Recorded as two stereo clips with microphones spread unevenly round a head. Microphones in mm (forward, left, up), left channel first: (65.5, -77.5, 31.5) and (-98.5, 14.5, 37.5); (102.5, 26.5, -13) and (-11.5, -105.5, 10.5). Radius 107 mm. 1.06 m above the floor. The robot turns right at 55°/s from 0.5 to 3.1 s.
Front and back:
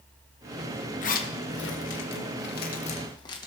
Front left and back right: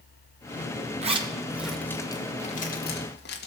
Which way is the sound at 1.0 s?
75° right.